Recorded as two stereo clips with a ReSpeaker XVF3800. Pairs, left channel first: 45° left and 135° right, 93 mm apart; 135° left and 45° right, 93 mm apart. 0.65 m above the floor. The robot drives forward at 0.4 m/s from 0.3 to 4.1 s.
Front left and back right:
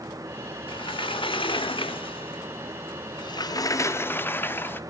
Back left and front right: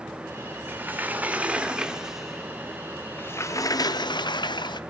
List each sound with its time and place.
0.7 s a sliding door: 25° left, 1.3 m; by 4.8 s 110° left, 0.6 m